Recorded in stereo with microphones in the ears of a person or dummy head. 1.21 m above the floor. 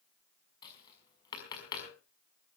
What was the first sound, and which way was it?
Tapping, 25° left (ahead or behind).